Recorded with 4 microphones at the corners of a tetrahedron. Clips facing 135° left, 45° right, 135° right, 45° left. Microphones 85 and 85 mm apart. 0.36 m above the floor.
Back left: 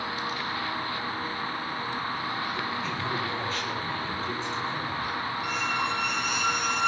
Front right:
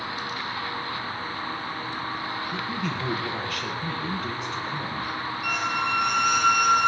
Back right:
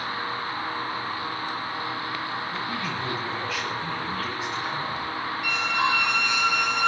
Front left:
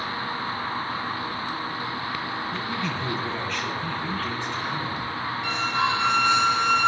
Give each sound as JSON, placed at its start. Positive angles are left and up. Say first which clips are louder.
{"t": 2.5, "sound": "a man speaking", "louder": "front right 1 dB, front left 1 dB", "azimuth_deg": -50, "distance_m": 8.0}
{"t": 5.4, "sound": "a squeak", "louder": "front right 4 dB, even", "azimuth_deg": -20, "distance_m": 6.0}